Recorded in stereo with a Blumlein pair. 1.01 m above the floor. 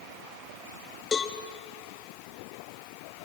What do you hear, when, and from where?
1.1 s a cowbell: 20° left, 1.5 m